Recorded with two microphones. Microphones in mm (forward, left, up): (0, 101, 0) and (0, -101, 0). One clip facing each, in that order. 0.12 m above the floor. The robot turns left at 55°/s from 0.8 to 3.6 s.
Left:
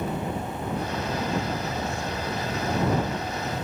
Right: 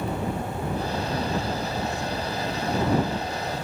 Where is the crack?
No crack in this recording.